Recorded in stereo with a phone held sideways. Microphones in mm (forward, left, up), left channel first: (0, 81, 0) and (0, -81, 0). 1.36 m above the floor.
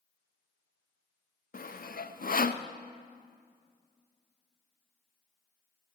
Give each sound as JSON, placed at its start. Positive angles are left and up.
{"t": 1.5, "sound": "sawing", "side_deg": 60, "distance_m": 0.7}